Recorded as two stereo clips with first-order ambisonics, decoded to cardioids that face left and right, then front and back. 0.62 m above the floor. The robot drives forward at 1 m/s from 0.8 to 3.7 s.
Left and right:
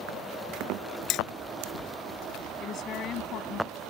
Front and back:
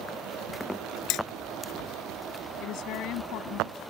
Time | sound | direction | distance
1.1 | hammering | 45° left | ?
2.6 | a woman speaking | 35° left | ?